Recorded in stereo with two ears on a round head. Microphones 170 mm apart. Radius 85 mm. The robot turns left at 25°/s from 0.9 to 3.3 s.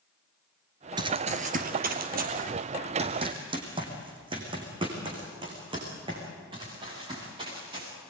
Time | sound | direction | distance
1.0 | running footsteps | 25° right (ahead or behind) | 1.6 m